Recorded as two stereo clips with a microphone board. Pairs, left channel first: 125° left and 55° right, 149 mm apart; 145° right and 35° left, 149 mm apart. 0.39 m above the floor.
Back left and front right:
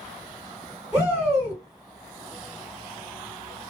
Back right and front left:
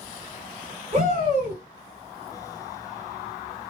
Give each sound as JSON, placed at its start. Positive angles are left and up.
{"t": 0.9, "sound": "a shout", "azimuth_deg": 25, "distance_m": 1.7}